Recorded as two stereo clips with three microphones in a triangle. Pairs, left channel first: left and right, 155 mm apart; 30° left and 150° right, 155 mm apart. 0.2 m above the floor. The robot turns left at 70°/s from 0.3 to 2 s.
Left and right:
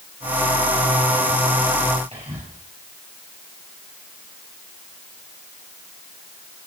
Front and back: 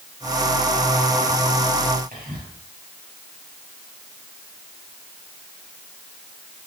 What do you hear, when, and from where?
2.1 s whispering: 135° right, 5.5 m